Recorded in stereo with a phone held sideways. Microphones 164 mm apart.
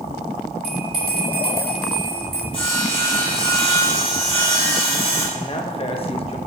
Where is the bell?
65° right (ahead or behind), 3 m.